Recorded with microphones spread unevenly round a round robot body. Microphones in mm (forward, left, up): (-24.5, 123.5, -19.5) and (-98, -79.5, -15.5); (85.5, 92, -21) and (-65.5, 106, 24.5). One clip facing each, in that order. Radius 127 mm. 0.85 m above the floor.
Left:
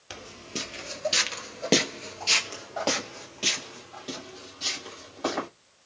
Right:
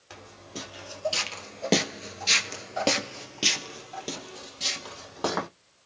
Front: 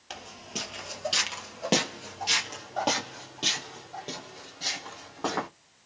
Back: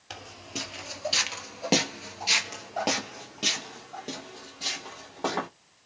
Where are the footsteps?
100° left, 1.2 m; by 5.5 s 110° right, 2 m.